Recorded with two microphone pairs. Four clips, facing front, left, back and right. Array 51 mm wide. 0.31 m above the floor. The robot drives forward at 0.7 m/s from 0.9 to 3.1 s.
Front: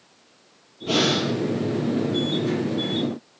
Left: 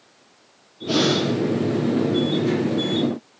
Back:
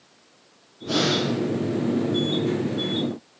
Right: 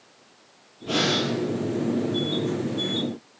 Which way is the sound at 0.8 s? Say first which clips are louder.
Left 4 dB, front 1 dB; 10° right.